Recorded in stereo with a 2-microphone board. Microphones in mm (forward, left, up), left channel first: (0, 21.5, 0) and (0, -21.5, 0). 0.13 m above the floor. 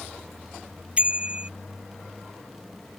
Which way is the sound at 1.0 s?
25° right (ahead or behind).